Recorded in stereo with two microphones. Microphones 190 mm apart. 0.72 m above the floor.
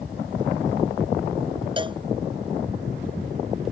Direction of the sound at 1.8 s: 25° right (ahead or behind).